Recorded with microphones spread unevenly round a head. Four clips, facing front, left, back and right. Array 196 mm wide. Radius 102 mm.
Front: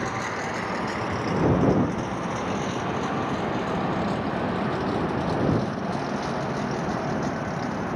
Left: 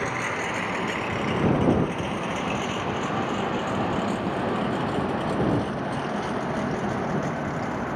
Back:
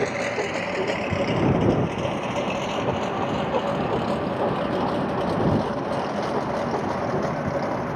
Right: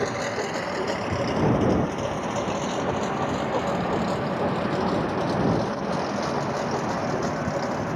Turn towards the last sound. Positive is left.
turn(degrees=-155)